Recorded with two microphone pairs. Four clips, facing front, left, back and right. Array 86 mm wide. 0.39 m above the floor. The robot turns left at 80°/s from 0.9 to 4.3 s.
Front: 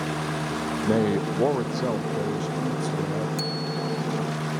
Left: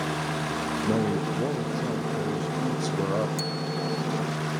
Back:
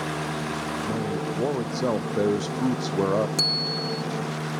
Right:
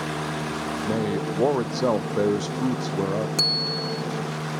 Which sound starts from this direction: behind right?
A bicycle bell, at 3.4 s.